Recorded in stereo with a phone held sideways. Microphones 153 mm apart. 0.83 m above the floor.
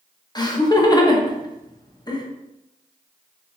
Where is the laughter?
25° left (ahead or behind), 0.5 m.